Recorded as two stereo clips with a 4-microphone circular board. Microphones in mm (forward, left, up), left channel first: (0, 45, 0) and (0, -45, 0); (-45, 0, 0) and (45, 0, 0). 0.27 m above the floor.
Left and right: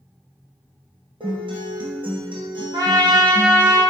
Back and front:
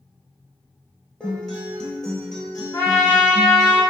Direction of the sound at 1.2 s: 95° right.